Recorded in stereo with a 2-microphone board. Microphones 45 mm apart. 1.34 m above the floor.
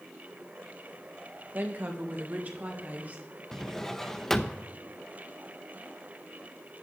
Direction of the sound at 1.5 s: 45° right (ahead or behind).